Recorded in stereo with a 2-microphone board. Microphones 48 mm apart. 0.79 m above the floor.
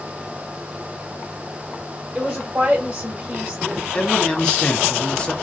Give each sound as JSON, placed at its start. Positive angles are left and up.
{"t": 2.1, "sound": "a woman speaking", "side_deg": -25, "distance_m": 1.2}
{"t": 3.9, "sound": "a man speaking", "side_deg": 20, "distance_m": 0.8}